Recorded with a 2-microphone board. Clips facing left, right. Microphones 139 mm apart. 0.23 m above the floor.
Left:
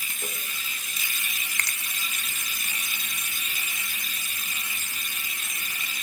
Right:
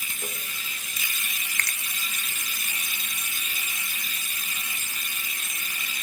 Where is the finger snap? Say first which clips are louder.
Right 1 dB; 30° left (ahead or behind), 1.0 m.